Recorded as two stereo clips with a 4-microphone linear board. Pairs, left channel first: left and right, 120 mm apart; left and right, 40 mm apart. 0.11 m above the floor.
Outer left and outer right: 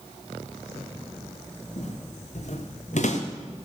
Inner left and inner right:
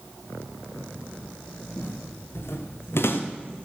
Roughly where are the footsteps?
Left.